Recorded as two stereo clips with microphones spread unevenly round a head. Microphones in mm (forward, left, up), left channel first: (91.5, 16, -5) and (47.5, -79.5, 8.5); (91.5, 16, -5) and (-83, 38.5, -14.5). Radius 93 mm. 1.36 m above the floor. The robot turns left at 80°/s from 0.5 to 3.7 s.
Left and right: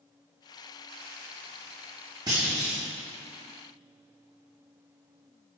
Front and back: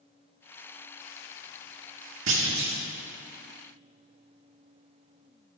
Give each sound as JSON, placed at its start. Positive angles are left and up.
{"t": 2.3, "sound": "a clunk", "azimuth_deg": 175, "distance_m": 2.0}